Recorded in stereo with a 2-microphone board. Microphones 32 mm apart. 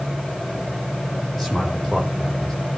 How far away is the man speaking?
About 7 m.